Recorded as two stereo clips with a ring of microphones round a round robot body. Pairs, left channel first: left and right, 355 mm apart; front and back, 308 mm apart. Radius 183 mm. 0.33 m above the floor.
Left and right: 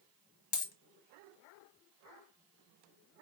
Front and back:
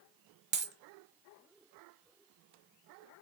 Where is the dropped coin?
125° left, 1.0 m.